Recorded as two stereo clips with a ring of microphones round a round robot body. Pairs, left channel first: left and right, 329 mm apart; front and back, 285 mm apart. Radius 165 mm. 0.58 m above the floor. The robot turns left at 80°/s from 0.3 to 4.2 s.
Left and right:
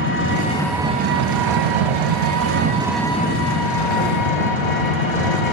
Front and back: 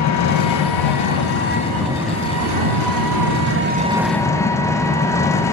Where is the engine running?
35° left, 1.2 m; by 5.5 s 80° left, 1.2 m.